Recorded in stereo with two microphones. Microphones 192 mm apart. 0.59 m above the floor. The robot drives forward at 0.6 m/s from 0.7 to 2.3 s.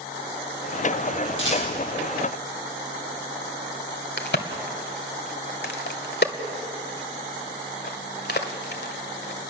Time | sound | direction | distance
1.4 | a rattle | 80° left | 8 m
4.2 | a crack | 60° left (ahead or behind) | 1.6 m